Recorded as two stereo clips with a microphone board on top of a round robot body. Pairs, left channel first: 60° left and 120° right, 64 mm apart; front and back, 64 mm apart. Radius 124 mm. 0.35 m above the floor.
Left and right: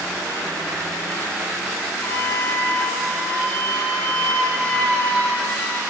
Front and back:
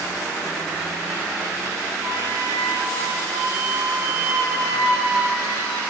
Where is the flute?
125° left, 8 m.